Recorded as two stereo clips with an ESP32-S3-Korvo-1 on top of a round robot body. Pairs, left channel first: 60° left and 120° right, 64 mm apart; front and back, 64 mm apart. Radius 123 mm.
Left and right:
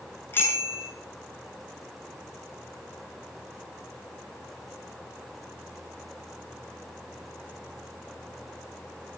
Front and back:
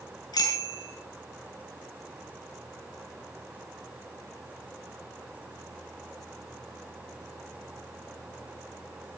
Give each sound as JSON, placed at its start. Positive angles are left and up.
{"t": 0.3, "sound": "a bicycle bell", "azimuth_deg": 0, "distance_m": 6.5}